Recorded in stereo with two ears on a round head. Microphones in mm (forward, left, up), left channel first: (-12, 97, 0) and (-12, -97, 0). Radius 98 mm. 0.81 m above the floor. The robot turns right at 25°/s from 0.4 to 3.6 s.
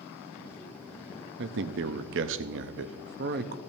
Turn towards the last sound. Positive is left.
turn(degrees=-50)